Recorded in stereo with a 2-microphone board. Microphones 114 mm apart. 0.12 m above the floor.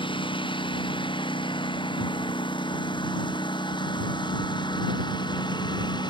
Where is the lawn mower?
45° left (ahead or behind); by 6.1 s 40° left (ahead or behind).